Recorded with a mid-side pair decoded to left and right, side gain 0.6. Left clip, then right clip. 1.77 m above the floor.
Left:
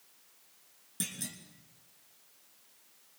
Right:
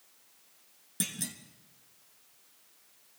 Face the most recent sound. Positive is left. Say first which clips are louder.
# right 3 dB
turn(degrees=-20)